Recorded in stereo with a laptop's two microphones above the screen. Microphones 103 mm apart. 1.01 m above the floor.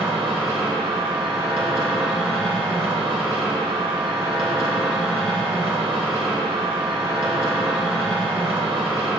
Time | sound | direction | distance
0.0 | a machine running | 65° right (ahead or behind) | 1.6 m